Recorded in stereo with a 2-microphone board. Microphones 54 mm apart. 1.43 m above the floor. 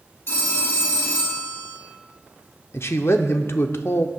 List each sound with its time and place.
0.3 s a phone ringing: 55° left (ahead or behind), 2.5 m
2.7 s a man speaking: 50° left (ahead or behind), 0.6 m